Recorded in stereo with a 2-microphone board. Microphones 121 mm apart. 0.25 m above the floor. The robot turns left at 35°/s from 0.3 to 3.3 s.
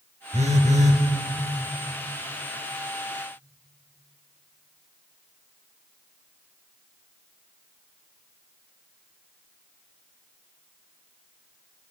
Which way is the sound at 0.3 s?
65° right (ahead or behind).